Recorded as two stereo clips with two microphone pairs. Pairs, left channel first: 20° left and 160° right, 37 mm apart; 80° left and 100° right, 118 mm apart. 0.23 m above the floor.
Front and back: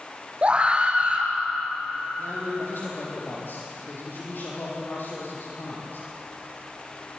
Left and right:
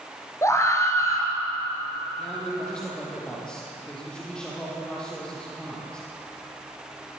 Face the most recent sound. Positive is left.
turn(degrees=0)